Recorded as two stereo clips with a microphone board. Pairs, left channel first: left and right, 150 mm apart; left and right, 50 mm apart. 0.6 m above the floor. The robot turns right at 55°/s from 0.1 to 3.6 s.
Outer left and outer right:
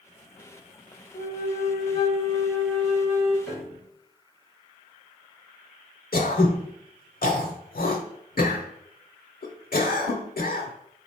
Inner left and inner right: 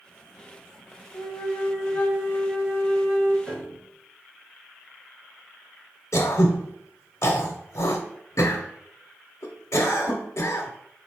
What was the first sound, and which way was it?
A flute, 90° left.